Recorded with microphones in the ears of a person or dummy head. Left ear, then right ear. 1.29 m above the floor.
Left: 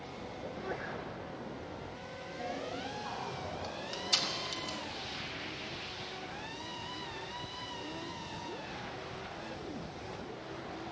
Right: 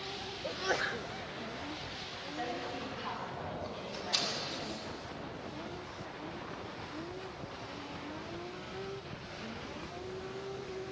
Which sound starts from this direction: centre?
A woman speaking, at 2.2 s.